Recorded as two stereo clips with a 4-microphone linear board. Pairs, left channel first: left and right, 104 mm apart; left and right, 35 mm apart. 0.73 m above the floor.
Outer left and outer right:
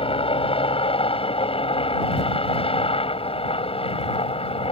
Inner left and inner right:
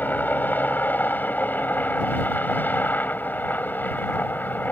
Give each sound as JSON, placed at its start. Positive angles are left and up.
{"t": 0.0, "sound": "a helicopter", "side_deg": 60}